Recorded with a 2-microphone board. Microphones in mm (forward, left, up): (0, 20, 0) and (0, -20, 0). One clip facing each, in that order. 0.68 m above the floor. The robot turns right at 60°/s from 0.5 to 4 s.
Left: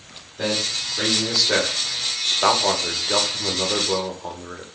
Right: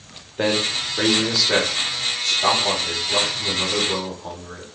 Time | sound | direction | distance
0.4 | a man speaking | 60° right | 1.1 m